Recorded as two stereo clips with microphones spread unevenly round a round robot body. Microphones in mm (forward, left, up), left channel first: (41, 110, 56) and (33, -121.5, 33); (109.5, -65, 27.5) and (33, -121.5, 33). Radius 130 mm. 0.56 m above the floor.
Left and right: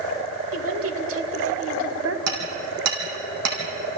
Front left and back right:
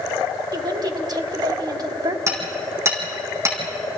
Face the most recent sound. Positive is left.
turn(degrees=-85)